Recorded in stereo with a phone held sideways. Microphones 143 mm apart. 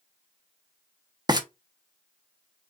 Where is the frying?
30° right (ahead or behind), 0.9 m.